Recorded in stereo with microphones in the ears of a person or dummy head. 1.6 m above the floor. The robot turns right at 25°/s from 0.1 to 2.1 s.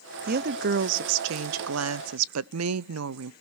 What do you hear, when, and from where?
0.3 s a woman speaking: 135° right, 0.6 m; by 3.3 s 90° right, 0.6 m